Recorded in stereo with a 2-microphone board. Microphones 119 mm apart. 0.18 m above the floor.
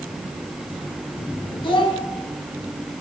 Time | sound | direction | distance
1.6 | a child speaking | 40° left (ahead or behind) | 1.1 m